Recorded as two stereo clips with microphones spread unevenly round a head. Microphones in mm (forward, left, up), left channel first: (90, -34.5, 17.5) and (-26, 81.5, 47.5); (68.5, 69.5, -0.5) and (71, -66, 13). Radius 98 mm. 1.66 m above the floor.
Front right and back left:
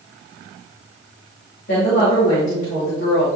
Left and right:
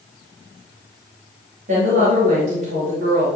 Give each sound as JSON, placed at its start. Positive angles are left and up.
{"t": 1.7, "sound": "a woman speaking", "azimuth_deg": -85, "distance_m": 2.5}